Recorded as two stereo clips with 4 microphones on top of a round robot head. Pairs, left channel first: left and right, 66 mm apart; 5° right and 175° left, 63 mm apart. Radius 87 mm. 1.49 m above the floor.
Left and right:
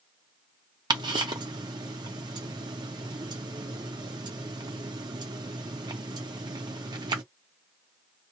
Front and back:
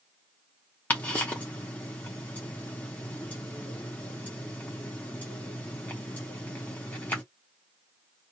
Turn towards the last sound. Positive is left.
turn(degrees=-75)